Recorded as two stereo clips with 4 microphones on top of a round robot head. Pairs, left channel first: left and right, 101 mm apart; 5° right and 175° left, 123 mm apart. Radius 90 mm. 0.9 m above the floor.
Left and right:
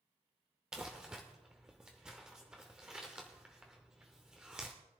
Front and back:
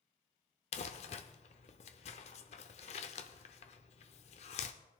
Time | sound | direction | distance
0.7 | crumpling | 5° right | 0.6 m